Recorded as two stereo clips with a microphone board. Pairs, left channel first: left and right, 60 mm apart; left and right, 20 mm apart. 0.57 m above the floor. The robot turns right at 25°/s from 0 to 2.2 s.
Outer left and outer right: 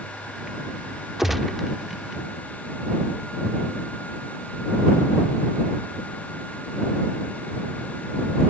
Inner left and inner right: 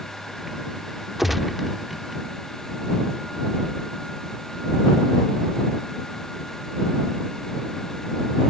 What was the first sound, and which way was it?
A gunshot, 10° right (ahead or behind).